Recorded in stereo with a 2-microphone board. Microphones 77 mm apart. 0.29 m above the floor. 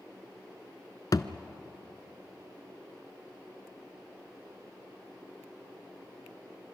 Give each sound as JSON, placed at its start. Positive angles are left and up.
{"t": 1.1, "sound": "a thud", "side_deg": 55, "distance_m": 0.8}